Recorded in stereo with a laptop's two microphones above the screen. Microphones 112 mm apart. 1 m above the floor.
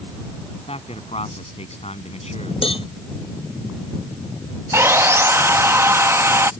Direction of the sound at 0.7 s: 60° left (ahead or behind).